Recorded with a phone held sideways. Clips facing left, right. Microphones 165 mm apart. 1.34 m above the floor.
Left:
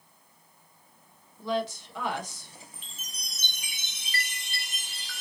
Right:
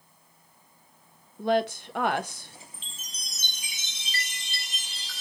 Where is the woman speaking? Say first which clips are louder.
Right 5 dB; 65° right (ahead or behind), 0.6 m.